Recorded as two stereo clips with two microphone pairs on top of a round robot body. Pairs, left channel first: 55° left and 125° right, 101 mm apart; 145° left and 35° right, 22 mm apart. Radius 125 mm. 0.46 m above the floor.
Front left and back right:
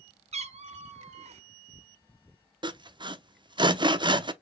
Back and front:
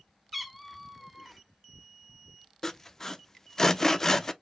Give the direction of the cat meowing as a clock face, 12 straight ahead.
4 o'clock.